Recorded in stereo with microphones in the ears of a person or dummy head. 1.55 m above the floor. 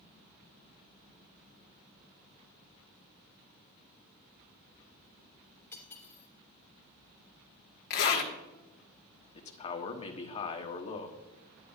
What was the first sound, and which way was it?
Cutlery clinking, 15° left (ahead or behind).